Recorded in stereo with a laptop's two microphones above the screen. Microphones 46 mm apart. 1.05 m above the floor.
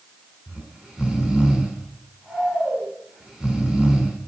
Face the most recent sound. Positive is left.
turn(degrees=-20)  # may be behind; listen again after turning